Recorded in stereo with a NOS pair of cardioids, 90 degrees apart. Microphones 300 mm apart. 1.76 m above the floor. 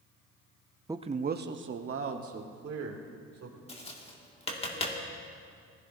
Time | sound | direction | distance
0.9 | a man speaking | 10° right | 0.5 m
3.7 | tapping | 20° left | 2 m